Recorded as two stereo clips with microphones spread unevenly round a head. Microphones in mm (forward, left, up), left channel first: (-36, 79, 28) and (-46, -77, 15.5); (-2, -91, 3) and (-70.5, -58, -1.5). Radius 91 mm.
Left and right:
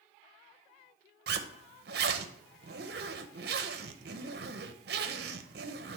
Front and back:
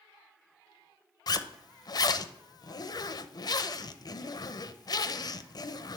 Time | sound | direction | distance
1.3 | a zipper | 55° right | 0.5 m